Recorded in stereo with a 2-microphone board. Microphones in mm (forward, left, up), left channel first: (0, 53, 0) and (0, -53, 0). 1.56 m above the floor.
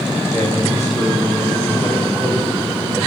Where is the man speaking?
30° left (ahead or behind), 5 m; by 3.0 s 5° left (ahead or behind), 3 m.